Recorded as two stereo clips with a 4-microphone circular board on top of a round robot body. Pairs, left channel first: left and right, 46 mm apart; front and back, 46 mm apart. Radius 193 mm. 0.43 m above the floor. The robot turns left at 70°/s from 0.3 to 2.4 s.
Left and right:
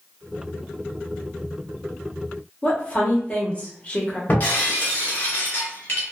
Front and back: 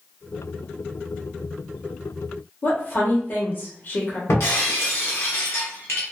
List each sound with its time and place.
2.6 s a woman speaking: 30° left, 1.3 m
4.3 s breaking glass: 35° left, 0.8 m